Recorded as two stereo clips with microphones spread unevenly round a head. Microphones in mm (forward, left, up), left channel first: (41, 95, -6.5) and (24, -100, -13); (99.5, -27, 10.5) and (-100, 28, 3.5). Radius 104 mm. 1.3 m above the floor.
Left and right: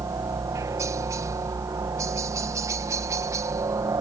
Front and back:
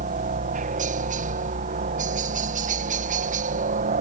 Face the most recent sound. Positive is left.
turn(degrees=-165)